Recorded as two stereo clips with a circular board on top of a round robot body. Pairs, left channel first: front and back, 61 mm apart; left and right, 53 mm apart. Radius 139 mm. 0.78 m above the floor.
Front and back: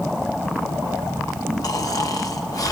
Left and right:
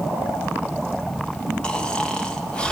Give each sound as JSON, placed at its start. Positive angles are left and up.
{"t": 1.6, "sound": "snoring", "azimuth_deg": 20, "distance_m": 2.0}